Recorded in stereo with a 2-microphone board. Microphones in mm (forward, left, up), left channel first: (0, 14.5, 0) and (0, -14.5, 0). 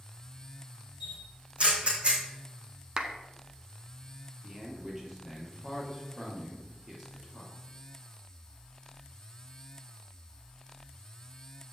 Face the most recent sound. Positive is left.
turn(degrees=-15)  # may be behind; listen again after turning